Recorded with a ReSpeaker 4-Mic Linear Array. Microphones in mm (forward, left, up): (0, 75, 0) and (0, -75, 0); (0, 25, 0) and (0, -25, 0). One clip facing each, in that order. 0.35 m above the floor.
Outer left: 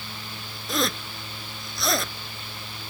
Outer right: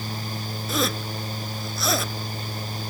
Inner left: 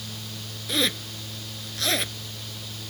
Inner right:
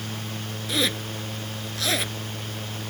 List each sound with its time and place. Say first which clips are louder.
0.7 s a zipper: outer right 1 dB, even; centre (ahead or behind)